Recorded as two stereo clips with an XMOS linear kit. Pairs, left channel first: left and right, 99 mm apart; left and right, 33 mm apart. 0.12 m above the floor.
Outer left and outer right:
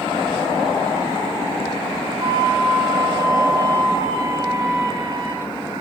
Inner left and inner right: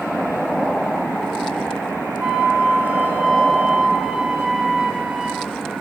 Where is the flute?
35° right (ahead or behind), 3.5 m.